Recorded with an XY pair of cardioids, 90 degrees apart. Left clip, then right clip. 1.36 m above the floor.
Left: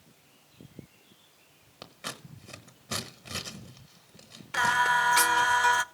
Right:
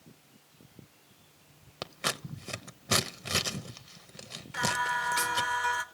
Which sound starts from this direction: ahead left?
Singing, at 4.5 s.